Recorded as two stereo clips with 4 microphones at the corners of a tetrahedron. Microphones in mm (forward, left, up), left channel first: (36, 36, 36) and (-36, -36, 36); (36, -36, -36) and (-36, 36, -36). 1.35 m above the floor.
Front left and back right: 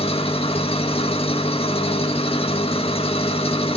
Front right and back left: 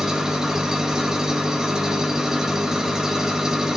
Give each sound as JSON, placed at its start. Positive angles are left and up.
{"t": 0.0, "sound": "an engine running", "azimuth_deg": 50, "distance_m": 1.5}